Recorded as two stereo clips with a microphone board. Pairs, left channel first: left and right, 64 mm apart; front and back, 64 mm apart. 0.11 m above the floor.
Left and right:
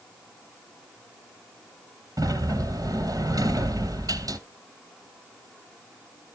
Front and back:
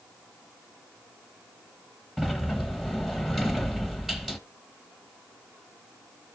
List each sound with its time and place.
2.2 s a sliding door: 95° right, 1.0 m